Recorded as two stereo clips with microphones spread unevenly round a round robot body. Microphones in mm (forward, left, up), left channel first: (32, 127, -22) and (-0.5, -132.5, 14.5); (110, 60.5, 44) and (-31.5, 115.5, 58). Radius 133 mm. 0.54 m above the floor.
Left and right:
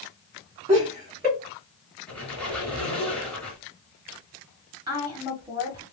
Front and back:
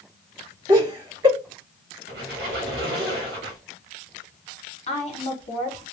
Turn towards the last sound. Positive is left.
turn(degrees=-20)